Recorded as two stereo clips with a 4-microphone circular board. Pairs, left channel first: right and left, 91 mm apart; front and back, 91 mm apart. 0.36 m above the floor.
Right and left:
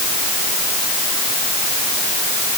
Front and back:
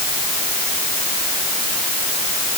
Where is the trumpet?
I don't hear a trumpet.